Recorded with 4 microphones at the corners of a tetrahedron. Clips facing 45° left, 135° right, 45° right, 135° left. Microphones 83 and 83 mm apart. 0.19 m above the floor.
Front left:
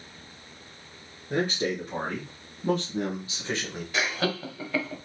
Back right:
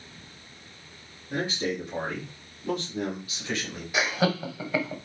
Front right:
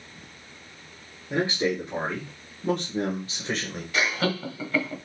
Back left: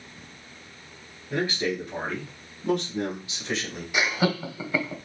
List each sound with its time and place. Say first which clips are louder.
1.3 s a man speaking: front left 2 dB, front right 2 dB; 20° left, 3 m; by 3.8 s 20° right, 2 m
3.9 s laughter: back right 3 dB, back left 1 dB; 175° left, 1.2 m